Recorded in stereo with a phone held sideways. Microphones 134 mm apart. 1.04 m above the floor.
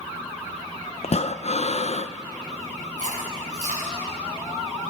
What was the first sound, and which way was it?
Breathing, 55° left (ahead or behind).